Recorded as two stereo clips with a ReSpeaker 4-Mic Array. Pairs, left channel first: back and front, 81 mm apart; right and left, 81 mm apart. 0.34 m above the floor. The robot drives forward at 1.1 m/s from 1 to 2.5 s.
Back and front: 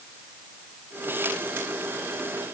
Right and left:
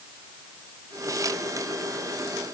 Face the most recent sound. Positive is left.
No sound to turn to.